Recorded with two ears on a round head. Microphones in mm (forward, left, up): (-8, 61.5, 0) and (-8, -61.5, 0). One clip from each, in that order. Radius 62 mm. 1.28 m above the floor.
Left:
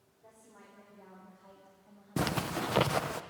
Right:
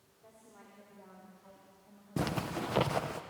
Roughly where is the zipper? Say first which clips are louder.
Left 3 dB; centre.